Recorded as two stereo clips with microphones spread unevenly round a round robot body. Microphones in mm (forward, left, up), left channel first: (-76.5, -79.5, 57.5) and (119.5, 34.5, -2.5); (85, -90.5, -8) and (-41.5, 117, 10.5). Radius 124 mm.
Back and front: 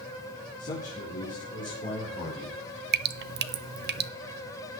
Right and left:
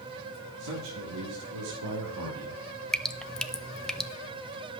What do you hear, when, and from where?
0.6 s a man speaking: 145° left, 3 m
2.9 s dripping: 25° left, 0.7 m